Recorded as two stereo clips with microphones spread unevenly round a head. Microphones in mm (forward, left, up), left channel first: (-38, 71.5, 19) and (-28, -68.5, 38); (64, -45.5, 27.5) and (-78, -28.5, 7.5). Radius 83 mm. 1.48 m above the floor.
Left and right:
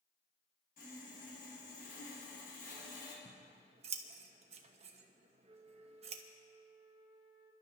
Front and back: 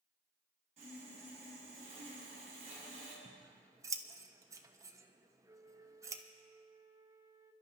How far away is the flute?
About 1.0 m.